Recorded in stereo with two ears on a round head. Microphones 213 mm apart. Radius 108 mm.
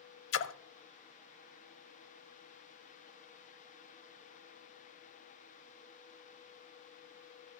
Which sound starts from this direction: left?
A splash, at 0.3 s.